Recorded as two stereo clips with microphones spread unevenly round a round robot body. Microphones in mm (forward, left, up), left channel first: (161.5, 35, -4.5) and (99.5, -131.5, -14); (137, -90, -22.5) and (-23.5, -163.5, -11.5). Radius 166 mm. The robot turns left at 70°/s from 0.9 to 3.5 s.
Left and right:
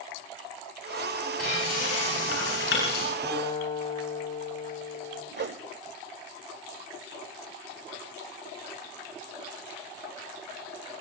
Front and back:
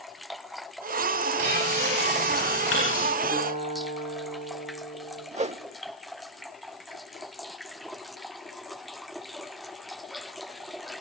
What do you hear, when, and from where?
1.4 s frying: 160° left, 9.5 m; by 3.1 s 40° left, 9.5 m
3.2 s a guitar: 160° left, 6.5 m; by 5.2 s 140° left, 6.5 m
5.3 s a whoosh: 105° right, 1.0 m